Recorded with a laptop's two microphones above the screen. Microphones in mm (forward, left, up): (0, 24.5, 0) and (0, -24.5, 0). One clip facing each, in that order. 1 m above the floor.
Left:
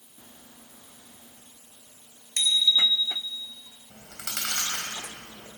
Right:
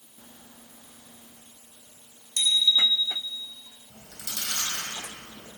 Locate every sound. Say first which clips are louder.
2.4 s a bicycle bell: even; 55° left (ahead or behind), 3.5 m
3.9 s chewing: left 3 dB; 75° left (ahead or behind), 4 m